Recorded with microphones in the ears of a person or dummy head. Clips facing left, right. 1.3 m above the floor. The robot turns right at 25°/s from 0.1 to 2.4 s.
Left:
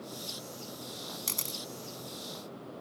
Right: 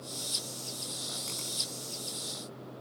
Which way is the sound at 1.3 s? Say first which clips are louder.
Left 1 dB; 65° left (ahead or behind).